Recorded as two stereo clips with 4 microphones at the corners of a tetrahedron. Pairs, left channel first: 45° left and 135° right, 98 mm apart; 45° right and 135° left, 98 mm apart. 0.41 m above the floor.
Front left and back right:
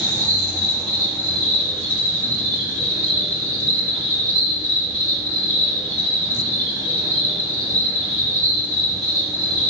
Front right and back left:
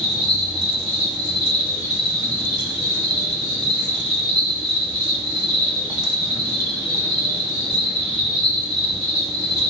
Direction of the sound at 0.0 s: 175° right.